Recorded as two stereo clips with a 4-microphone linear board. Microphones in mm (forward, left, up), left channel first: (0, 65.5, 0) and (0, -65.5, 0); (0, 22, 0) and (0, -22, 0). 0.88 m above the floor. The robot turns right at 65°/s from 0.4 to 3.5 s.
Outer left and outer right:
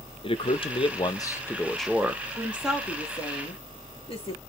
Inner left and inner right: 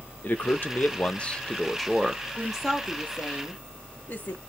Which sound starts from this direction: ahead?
A woman speaking, at 2.4 s.